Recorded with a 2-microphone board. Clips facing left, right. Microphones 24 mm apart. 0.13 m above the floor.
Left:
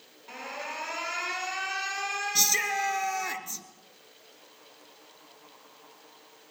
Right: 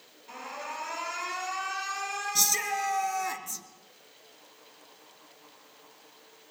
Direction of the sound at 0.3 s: 20° left (ahead or behind).